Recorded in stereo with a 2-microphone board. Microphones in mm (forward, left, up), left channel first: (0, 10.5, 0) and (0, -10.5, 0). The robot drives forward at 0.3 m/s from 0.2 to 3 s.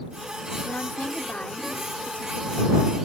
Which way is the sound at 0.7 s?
80° left.